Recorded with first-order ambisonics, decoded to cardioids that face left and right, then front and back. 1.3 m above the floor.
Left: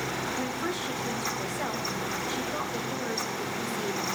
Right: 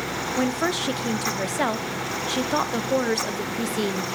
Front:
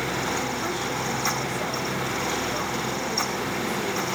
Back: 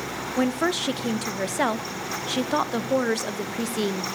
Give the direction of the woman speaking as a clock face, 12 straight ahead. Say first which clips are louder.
Right 7 dB, back 3 dB; 5 o'clock.